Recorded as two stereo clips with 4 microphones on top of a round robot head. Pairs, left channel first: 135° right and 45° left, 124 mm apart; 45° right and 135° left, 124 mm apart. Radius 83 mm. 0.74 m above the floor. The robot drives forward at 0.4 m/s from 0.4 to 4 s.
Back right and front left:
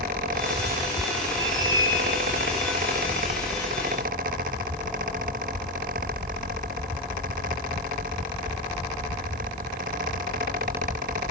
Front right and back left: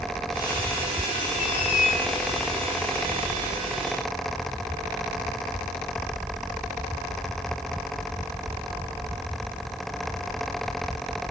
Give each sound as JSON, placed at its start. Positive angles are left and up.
{"t": 1.4, "sound": "a squeak", "azimuth_deg": -15, "distance_m": 4.5}